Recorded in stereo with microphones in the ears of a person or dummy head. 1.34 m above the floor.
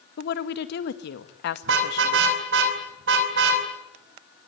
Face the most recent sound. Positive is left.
turn(degrees=-75)  # may be behind; listen again after turning